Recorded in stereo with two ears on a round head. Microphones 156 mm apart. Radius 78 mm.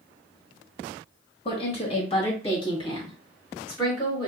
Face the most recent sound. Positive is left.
turn(degrees=25)  # may be behind; listen again after turning